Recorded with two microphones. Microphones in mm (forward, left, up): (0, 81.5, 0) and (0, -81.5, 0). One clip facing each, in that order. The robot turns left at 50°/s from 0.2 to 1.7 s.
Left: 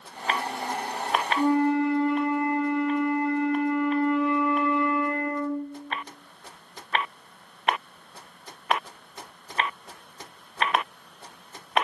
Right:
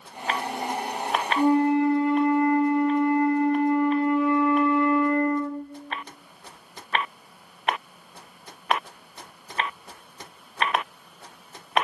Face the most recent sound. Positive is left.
turn(degrees=-15)  # may be behind; listen again after turning